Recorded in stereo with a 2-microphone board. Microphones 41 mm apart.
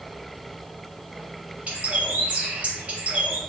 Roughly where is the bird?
Right.